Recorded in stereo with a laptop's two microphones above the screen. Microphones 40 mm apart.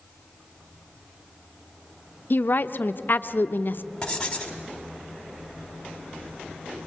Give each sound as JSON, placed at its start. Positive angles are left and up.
{"t": 2.3, "sound": "a woman speaking", "side_deg": 55, "distance_m": 0.6}
{"t": 4.0, "sound": "writing", "side_deg": 20, "distance_m": 2.0}